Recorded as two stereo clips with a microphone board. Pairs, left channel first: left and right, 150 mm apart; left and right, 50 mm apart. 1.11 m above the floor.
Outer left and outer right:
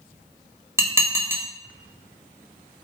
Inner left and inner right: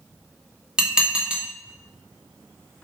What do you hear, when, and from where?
0.8 s dishes clattering: 20° right (ahead or behind), 0.7 m